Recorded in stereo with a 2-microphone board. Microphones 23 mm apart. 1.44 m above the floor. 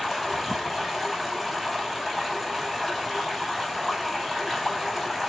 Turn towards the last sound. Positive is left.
turn(degrees=0)  # may be behind; listen again after turning